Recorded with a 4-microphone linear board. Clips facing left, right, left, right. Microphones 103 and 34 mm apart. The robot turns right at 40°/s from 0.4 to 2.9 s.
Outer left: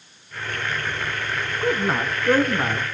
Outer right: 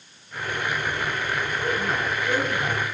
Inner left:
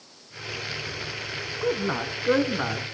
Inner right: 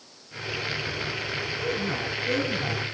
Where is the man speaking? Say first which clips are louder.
Outer left 6 dB, inner left 5 dB; 35° left, 2 m; by 2.9 s 85° left, 2 m.